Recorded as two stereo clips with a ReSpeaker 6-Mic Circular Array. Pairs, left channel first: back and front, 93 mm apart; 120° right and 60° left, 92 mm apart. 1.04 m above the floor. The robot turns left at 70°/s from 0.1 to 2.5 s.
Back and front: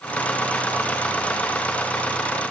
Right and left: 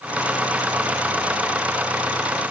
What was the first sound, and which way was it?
Only background noise.